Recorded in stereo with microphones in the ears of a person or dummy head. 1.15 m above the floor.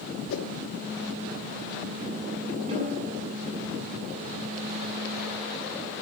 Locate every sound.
0.3 s a whoosh: 75° left (ahead or behind), 1.0 m
2.7 s a snare drum: 25° right (ahead or behind), 7 m